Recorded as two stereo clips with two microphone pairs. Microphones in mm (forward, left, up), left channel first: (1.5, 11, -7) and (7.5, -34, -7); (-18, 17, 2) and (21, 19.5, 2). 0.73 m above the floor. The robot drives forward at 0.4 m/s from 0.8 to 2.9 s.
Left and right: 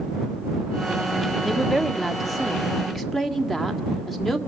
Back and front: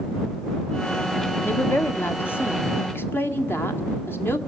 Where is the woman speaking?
170° right, 1.2 m; by 4.4 s 175° right, 1.7 m.